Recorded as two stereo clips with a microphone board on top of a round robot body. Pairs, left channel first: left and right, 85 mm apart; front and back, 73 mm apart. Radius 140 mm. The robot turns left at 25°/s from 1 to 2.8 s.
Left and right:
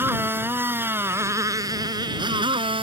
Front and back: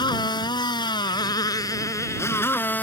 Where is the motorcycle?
25° right; by 2.8 s 70° right.